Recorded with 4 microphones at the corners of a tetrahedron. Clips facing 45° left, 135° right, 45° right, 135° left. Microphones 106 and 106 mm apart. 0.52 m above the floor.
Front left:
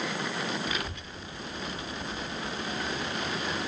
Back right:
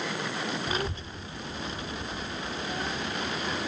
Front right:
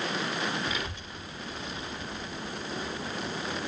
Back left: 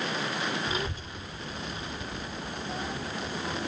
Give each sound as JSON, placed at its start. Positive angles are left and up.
{"t": 0.7, "sound": "a child speaking", "azimuth_deg": 180, "distance_m": 0.9}